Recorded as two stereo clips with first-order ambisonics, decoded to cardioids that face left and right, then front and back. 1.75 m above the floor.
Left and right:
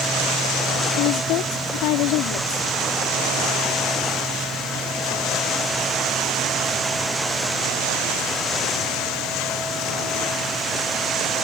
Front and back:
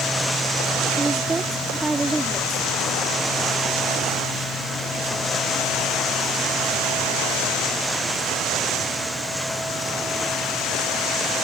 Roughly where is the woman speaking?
Left.